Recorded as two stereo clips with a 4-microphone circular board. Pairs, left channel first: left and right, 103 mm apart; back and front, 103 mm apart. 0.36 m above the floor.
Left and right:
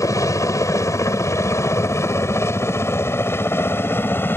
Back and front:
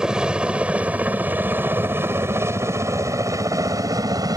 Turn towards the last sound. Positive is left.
turn(degrees=30)